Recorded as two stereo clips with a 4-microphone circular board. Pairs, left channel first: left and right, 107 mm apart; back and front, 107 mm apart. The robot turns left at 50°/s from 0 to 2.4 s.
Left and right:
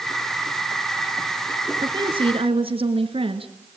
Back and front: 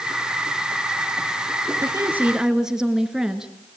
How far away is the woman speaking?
About 2 m.